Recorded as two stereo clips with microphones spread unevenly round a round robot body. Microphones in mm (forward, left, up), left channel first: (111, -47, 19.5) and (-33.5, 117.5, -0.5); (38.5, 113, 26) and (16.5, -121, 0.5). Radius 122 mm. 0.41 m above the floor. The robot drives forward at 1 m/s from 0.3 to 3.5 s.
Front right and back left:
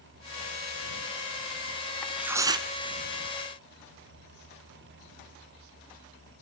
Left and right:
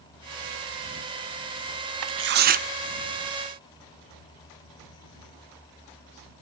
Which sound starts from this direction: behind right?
Tearing paper, at 2.0 s.